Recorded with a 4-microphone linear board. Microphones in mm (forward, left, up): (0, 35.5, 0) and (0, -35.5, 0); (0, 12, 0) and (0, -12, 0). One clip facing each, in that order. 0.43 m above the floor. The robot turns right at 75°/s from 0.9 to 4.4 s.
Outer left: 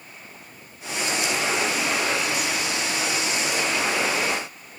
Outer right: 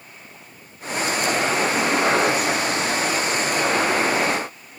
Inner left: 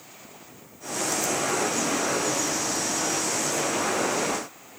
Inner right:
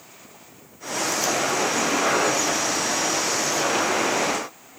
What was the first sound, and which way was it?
Only background noise.